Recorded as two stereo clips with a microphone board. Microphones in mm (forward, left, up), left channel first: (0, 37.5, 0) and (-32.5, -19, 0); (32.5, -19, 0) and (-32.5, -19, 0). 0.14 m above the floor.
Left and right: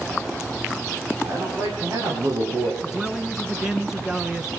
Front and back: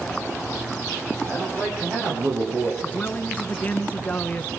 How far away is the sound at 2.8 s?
About 1.5 m.